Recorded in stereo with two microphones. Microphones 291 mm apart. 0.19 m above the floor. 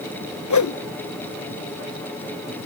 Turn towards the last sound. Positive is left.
turn(degrees=80)